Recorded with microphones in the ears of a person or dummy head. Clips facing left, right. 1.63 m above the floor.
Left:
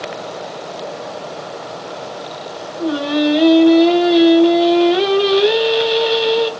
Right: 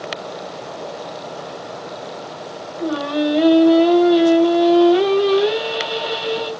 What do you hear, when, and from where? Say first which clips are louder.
2.8 s singing: left 3 dB; 35° left (ahead or behind), 2.5 m